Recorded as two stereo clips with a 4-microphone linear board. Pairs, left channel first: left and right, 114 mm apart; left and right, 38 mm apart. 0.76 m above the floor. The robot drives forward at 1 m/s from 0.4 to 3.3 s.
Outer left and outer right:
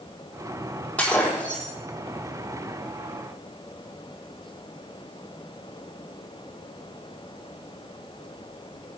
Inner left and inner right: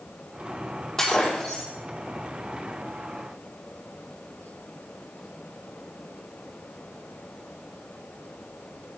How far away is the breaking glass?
About 7.5 m.